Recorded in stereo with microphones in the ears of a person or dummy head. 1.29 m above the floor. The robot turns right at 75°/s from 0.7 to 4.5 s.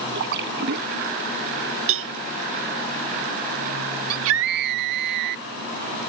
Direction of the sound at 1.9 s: 60° right (ahead or behind).